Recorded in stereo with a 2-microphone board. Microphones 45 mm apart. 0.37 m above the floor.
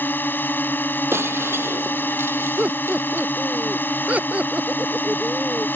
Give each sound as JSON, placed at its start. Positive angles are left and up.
{"t": 0.0, "sound": "a drone", "side_deg": 45}
{"t": 1.1, "sound": "breaking glass", "side_deg": -65}
{"t": 2.6, "sound": "laughter", "side_deg": -35}